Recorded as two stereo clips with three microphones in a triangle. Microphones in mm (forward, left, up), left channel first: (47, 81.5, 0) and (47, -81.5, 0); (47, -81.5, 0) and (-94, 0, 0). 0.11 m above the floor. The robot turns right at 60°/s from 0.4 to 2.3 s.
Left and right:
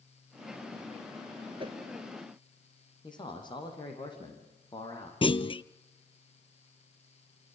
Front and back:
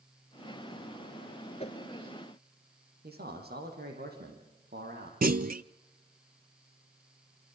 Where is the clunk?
140° left, 0.6 m.